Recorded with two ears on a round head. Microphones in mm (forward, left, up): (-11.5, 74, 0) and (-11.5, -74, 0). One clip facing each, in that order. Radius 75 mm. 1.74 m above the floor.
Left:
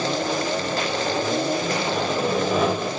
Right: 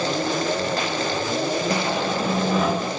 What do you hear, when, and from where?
1.7 s sawing: 60° left (ahead or behind), 2.5 m